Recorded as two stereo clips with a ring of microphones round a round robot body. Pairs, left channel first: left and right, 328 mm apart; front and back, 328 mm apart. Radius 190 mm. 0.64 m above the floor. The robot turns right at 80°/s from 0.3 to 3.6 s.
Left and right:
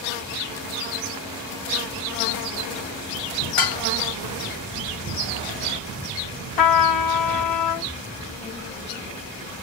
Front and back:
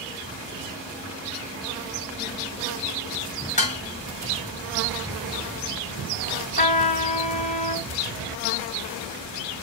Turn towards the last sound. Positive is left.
turn(degrees=70)